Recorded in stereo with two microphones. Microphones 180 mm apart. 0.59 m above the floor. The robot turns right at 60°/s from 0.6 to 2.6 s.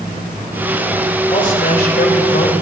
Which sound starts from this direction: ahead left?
A man speaking, at 1.3 s.